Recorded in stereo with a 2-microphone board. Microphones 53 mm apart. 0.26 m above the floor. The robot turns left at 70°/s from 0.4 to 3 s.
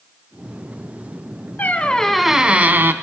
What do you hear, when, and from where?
1.6 s a squeak: 40° left, 0.6 m; by 2.9 s 55° right, 0.6 m